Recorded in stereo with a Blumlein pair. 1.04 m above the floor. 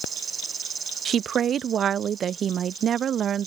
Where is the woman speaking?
25° right.